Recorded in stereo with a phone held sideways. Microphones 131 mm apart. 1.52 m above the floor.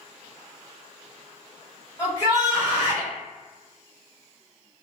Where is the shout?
25° left (ahead or behind), 1.5 m.